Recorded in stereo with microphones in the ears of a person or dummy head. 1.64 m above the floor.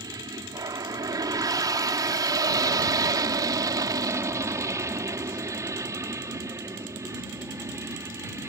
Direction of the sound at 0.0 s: 20° right (ahead or behind).